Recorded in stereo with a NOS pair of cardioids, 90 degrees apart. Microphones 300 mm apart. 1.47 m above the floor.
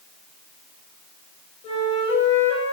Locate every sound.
1.6 s a flute: 40° left, 3.5 m